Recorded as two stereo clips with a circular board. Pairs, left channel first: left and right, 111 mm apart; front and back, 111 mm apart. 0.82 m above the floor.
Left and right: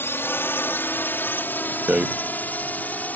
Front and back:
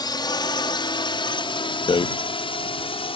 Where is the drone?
30° left; by 3.2 s 15° left.